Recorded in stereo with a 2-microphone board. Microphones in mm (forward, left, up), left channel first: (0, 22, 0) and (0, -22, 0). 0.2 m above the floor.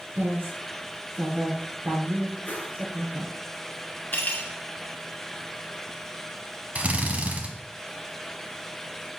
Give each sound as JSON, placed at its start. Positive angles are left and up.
{"t": 0.1, "sound": "a woman speaking", "side_deg": -70, "distance_m": 2.5}
{"t": 2.5, "sound": "a whoosh", "side_deg": 45, "distance_m": 1.1}
{"t": 4.1, "sound": "cutlery clinking", "side_deg": 40, "distance_m": 1.5}
{"t": 6.8, "sound": "a drill", "side_deg": -35, "distance_m": 1.0}